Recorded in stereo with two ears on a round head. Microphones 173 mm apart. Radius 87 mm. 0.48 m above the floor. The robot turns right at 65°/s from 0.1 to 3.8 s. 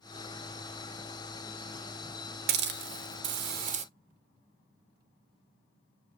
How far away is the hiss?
About 0.6 m.